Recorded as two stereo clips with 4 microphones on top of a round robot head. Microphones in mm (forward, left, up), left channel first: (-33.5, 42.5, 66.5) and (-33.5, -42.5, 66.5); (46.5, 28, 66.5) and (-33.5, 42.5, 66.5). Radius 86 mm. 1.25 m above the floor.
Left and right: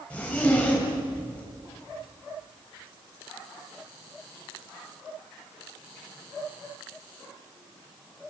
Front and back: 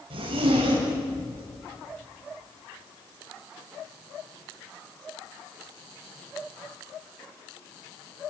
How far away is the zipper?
About 7.5 m.